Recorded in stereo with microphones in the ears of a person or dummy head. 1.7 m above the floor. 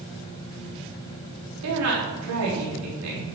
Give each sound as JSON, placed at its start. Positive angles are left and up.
{"t": 1.6, "sound": "a woman speaking", "side_deg": -75, "distance_m": 4.0}